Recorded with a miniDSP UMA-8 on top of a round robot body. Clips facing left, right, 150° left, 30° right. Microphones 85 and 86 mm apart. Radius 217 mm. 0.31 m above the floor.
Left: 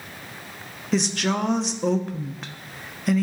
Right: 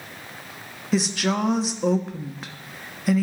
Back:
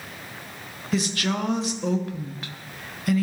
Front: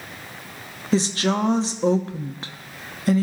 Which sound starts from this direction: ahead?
A woman speaking, at 0.9 s.